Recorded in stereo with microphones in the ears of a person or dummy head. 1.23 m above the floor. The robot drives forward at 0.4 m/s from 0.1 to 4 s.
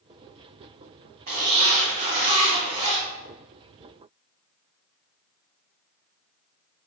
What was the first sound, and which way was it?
A zipper, 40° right (ahead or behind).